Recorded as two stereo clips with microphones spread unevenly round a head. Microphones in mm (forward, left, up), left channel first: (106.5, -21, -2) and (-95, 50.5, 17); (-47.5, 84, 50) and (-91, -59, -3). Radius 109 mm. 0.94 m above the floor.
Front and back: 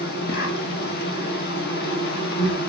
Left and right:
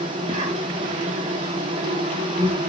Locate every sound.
0.0 s an insect: 60° right, 1.2 m